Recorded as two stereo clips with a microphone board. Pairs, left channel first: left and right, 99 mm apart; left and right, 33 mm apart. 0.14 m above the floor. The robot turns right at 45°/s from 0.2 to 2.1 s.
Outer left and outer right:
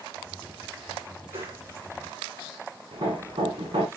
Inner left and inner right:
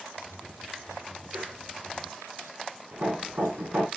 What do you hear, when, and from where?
1.3 s a whoosh: 75° right (ahead or behind), 6.5 m; by 1.6 s 80° right, 6.5 m
2.9 s hammering: 65° right (ahead or behind), 4 m